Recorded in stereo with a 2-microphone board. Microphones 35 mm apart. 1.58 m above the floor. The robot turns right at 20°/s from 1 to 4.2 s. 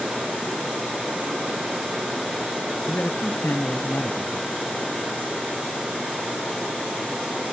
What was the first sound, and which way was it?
A man speaking, 65° left (ahead or behind).